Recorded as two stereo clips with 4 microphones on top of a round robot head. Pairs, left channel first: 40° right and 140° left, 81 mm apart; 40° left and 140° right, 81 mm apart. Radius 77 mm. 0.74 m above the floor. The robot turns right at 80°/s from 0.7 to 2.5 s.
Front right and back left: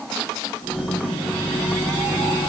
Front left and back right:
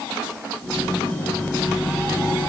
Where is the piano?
No piano in this recording.